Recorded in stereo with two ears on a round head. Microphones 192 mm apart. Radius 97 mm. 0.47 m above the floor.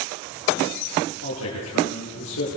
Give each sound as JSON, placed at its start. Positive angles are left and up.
{"t": 1.2, "sound": "a man speaking", "side_deg": 80, "distance_m": 9.0}